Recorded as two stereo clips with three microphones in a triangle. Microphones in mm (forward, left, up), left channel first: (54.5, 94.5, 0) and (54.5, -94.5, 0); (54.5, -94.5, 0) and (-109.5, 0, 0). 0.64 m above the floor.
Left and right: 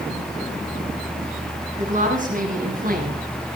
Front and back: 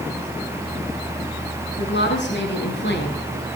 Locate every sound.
1.8 s a woman speaking: 45° right, 8 m; by 3.2 s 50° right, 7 m